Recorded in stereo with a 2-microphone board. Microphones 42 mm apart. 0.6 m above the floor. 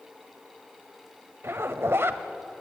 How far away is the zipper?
About 1.2 m.